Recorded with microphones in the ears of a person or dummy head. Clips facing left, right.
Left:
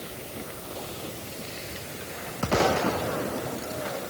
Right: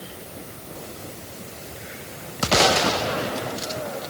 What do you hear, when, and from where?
Only background noise.